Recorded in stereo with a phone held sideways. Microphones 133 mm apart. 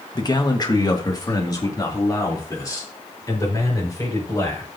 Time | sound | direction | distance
0.1 | a man speaking | 30° left (ahead or behind) | 1.1 m